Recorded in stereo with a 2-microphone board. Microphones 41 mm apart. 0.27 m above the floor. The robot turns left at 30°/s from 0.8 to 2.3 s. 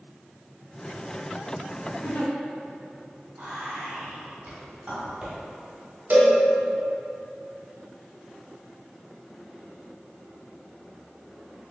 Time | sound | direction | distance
2.0 | a giggle | 70° left (ahead or behind) | 0.8 m
3.4 | whispering | 30° right (ahead or behind) | 1.3 m
6.1 | a cowbell | 55° right (ahead or behind) | 0.8 m